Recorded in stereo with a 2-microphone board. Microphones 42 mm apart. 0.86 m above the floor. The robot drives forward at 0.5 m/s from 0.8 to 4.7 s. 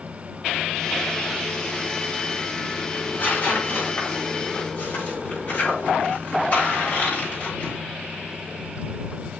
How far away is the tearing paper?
About 6 m.